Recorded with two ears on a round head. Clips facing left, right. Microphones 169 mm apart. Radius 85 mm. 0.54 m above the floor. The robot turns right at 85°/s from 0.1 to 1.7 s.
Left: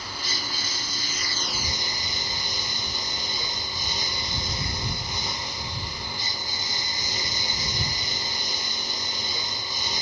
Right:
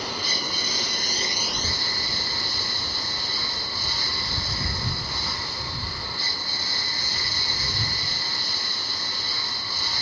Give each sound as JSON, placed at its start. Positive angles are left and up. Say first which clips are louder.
{"t": 0.0, "sound": "a lawn mower", "louder": "right 5 dB", "azimuth_deg": -120}